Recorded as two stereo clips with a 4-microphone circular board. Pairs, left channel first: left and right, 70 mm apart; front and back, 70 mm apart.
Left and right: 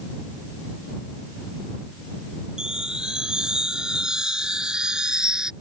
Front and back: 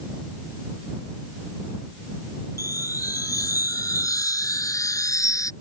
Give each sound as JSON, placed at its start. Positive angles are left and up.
{"t": 2.6, "sound": "a chime", "azimuth_deg": -15}